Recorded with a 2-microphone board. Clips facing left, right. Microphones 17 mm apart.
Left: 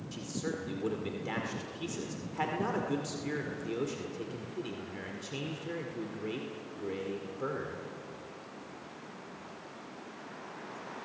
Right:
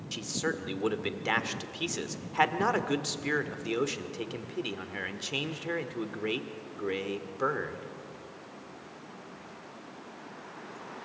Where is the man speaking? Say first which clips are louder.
Right 5 dB; 40° right (ahead or behind), 2.0 m.